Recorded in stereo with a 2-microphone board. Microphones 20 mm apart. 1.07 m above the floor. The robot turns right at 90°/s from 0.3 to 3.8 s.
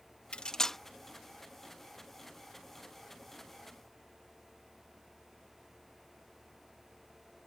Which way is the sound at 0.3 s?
50° left (ahead or behind).